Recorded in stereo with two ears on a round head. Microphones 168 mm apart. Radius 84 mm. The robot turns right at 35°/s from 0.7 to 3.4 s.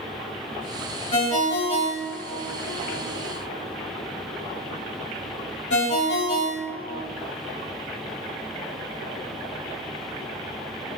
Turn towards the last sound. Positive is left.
turn(degrees=60)  # may be behind; listen again after turning